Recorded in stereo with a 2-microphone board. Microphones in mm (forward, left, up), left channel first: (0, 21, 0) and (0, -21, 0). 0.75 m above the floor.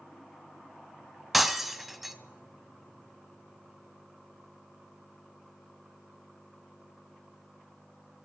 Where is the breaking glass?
5° right (ahead or behind), 1.0 m.